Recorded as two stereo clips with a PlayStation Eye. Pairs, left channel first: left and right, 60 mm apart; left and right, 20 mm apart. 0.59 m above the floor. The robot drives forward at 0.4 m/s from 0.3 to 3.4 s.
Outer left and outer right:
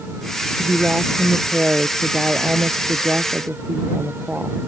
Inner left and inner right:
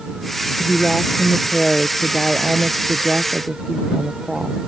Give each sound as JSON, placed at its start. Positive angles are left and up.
{"t": 0.6, "sound": "a woman speaking", "side_deg": -25}